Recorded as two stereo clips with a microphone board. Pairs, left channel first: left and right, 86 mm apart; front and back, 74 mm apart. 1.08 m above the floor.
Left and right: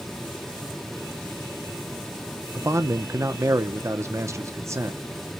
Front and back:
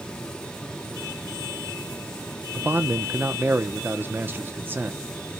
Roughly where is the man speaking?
Behind right.